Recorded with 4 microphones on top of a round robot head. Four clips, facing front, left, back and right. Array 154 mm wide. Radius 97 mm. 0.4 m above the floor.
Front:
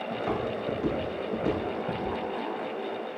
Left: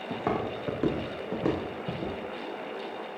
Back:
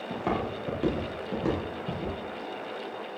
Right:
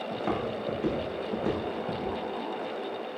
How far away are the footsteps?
About 5.5 m.